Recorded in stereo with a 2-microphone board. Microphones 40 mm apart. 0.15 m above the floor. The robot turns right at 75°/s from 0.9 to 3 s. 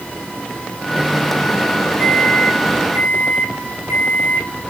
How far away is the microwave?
About 3.5 m.